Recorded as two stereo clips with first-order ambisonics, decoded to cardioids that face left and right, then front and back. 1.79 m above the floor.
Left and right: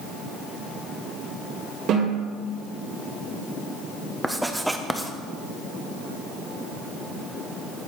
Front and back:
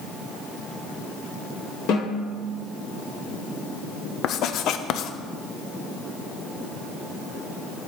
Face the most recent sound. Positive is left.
turn(degrees=-5)